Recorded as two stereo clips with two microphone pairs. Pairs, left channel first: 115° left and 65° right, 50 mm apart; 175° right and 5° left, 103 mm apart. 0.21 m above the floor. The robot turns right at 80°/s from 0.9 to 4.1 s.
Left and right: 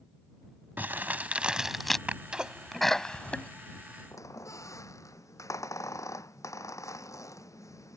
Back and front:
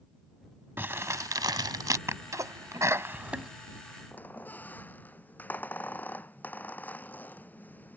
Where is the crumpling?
55° right; by 2.0 s 35° left.